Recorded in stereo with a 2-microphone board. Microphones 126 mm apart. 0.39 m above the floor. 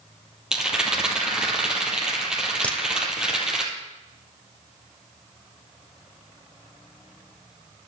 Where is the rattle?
5° right (ahead or behind), 2.5 m.